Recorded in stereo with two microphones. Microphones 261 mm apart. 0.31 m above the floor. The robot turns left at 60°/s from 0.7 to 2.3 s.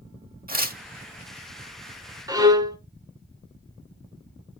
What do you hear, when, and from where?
0.5 s tearing paper: 35° right (ahead or behind), 0.7 m; by 0.8 s 40° right (ahead or behind), 0.7 m
2.3 s a violin: 15° right (ahead or behind), 0.6 m